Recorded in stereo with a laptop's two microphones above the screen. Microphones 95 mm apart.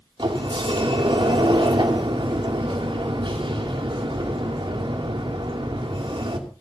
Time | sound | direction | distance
0.2 | a sliding door | 65° right (ahead or behind) | 2.5 m